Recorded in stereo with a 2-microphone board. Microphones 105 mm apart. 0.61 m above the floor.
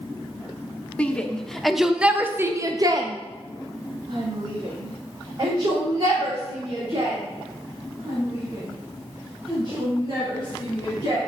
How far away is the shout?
About 1.4 m.